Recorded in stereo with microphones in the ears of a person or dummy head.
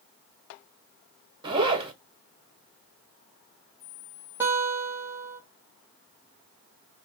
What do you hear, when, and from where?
1.4 s a zipper: 25° right (ahead or behind), 1.1 m
4.4 s a guitar: 15° right (ahead or behind), 2 m